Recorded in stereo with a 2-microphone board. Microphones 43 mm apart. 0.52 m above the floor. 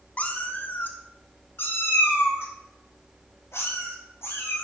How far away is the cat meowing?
About 0.7 m.